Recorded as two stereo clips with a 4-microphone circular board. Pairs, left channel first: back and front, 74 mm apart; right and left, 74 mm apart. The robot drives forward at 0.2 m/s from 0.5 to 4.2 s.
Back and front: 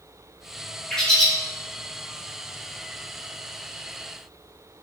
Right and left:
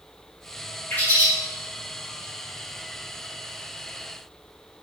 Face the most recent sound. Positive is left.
turn(degrees=-150)